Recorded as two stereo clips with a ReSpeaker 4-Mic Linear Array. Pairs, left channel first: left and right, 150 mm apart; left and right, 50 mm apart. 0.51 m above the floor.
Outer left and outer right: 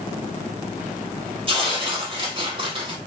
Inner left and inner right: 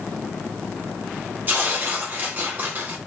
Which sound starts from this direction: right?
Tearing paper, at 1.5 s.